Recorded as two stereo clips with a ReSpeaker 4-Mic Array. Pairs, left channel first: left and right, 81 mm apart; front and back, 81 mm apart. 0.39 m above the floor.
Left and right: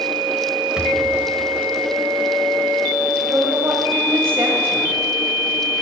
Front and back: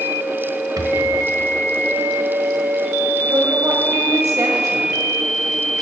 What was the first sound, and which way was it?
A rattle, 170° right.